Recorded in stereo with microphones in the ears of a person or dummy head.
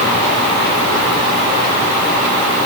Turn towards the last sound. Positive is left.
No sound to turn to.